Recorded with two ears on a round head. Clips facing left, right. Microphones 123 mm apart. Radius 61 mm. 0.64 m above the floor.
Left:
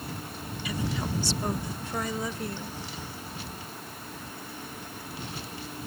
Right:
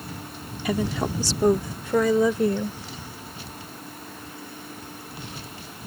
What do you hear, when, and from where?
0.7 s a woman speaking: 40° right (ahead or behind); by 2.8 s 65° right (ahead or behind)